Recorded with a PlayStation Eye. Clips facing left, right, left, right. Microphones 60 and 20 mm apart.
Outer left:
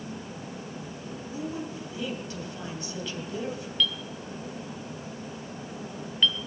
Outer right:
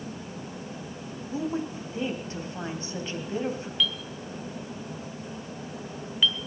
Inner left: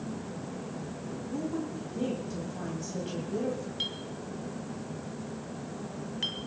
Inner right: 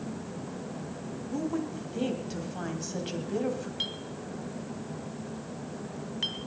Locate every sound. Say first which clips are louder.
1.3 s a woman speaking: outer right 5 dB, inner right 2 dB; 35° right (ahead or behind), 2.5 m
3.8 s a clink: outer left 2 dB, even; 5° right (ahead or behind), 1.6 m